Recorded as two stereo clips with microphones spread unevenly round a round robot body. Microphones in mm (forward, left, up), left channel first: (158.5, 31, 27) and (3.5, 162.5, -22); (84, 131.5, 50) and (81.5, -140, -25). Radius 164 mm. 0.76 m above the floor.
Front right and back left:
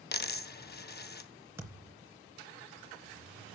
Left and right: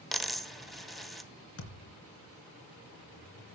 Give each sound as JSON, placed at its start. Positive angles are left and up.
{"t": 0.1, "sound": "a dropped coin", "azimuth_deg": 0, "distance_m": 1.3}
{"t": 1.6, "sound": "a thud", "azimuth_deg": 60, "distance_m": 3.0}